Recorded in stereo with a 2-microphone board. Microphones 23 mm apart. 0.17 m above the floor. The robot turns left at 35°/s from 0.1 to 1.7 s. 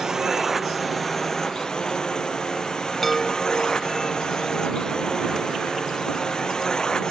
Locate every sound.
0.0 s a drone: 155° right; by 7.1 s 150° left
3.0 s a chime: 5° left (ahead or behind)